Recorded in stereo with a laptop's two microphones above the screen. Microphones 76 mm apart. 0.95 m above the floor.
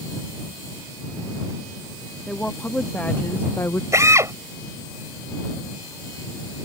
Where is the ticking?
I don't hear ticking.